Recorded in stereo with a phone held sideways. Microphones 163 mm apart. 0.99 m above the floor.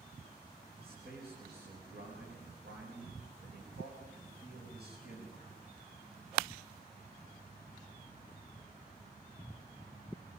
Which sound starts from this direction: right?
A man speaking, at 0.8 s.